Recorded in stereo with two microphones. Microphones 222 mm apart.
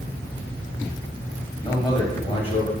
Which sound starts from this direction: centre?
A man speaking, at 1.6 s.